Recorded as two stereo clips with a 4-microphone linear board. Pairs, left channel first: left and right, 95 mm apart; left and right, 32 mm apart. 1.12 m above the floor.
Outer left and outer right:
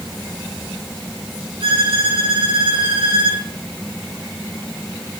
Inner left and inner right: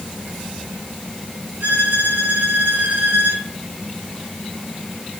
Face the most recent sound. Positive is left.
turn(degrees=-80)